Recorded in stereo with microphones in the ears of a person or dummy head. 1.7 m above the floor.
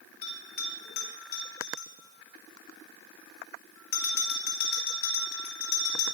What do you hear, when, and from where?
0.2 s a bell: 40° left (ahead or behind), 3.5 m